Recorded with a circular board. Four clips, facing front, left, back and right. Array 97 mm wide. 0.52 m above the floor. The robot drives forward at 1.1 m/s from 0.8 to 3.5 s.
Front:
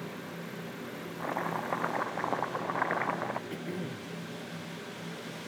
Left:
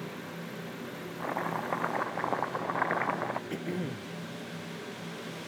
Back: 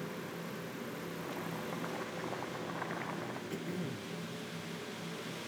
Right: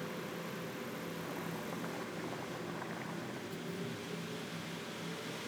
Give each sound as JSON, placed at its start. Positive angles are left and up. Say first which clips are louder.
{"t": 1.2, "sound": "chopping", "louder": "left 9 dB, front 11 dB", "azimuth_deg": 45}
{"t": 3.5, "sound": "throat clearing", "louder": "left 7 dB, front 2 dB", "azimuth_deg": 80}